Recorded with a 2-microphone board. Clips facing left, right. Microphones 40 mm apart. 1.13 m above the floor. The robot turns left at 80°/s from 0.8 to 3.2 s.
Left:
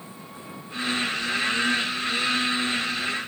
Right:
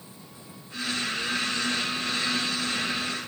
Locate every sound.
0.0 s an engine running: 40° left; by 3.3 s 155° right